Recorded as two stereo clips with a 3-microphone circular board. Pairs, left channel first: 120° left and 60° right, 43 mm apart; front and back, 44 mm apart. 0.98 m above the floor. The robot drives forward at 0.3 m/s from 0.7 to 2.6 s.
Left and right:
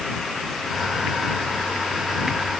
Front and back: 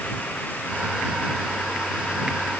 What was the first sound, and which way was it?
Only background noise.